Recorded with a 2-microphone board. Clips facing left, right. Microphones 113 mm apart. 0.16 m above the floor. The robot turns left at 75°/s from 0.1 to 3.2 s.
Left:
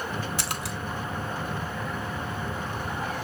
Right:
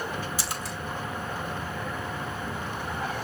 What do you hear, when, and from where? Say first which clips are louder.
0.4 s a splash: left 1 dB; 60° left (ahead or behind), 0.7 m; by 0.8 s 85° left, 0.7 m